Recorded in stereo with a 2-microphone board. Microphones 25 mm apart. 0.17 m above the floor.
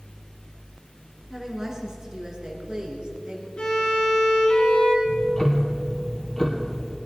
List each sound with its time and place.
1.3 s a woman speaking: 20° right (ahead or behind), 2.5 m; by 3.5 s 45° right (ahead or behind), 3 m
3.6 s a violin: 35° left (ahead or behind), 2.5 m
5.0 s ticking: 25° left (ahead or behind), 1.6 m